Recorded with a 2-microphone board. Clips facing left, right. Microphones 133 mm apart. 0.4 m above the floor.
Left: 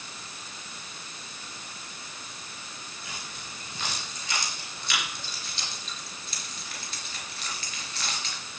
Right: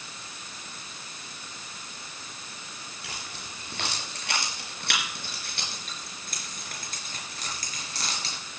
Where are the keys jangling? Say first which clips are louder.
Right 1 dB; 75° right (ahead or behind), 5 m; by 8.4 s 35° right (ahead or behind), 4 m.